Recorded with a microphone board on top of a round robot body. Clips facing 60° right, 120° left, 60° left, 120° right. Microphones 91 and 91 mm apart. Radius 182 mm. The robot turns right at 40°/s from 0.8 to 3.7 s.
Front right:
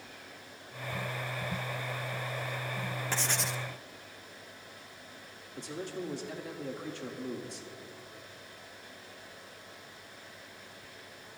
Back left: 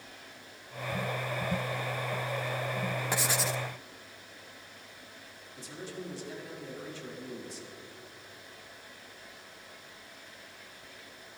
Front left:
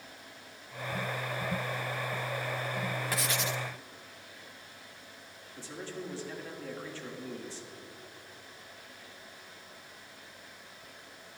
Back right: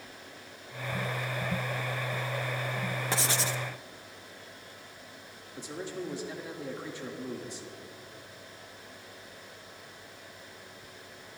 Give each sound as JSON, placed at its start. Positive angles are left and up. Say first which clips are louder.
{"t": 3.1, "sound": "writing", "louder": "back left 2 dB, back right 2 dB", "azimuth_deg": -170, "distance_m": 0.7}
{"t": 5.6, "sound": "a man speaking", "louder": "front right 4 dB, back right 4 dB", "azimuth_deg": -50, "distance_m": 1.8}